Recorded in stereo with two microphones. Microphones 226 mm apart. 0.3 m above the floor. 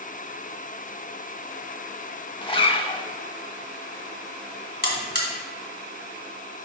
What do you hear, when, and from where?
2.4 s a zipper: 25° left (ahead or behind), 0.6 m
4.8 s a buzzer: 45° left (ahead or behind), 1.7 m